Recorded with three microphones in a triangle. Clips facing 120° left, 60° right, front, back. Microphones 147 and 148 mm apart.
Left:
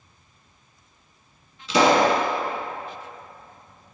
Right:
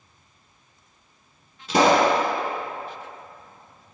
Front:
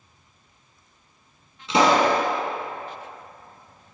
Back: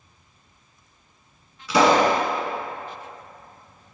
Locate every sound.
1.7 s a pop: 60° right, 1.7 m